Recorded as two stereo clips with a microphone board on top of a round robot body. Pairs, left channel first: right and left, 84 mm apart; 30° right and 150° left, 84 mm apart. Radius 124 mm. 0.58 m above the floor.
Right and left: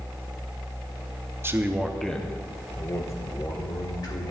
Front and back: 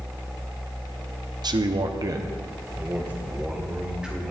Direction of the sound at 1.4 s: 145° left.